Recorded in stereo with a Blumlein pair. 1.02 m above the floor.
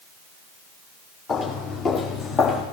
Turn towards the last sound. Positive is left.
turn(degrees=30)